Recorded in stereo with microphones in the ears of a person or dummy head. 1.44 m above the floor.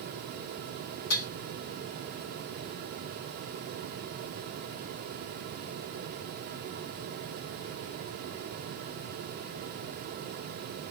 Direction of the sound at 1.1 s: 60° left (ahead or behind).